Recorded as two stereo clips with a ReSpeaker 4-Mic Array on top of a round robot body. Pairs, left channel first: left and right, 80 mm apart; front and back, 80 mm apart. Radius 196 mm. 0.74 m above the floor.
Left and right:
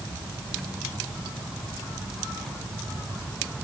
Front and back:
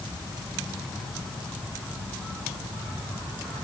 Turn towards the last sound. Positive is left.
No sound to turn to.